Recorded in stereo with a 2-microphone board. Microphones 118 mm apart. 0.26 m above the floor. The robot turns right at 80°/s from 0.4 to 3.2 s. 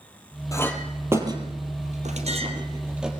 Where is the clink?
30° left (ahead or behind), 4 m; by 3.1 s centre (ahead or behind), 4 m.